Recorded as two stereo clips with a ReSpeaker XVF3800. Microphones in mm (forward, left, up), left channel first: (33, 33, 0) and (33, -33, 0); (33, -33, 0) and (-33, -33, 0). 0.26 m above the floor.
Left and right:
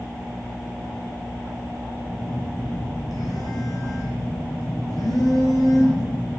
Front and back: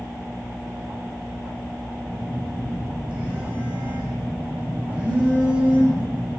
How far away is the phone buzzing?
About 7.5 m.